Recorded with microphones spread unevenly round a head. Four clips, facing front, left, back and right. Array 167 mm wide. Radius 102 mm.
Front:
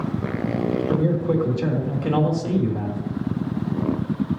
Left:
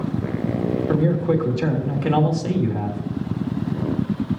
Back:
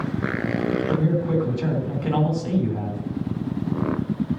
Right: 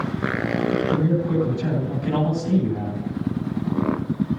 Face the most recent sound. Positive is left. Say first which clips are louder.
# left 2 dB, front 1 dB
turn(degrees=80)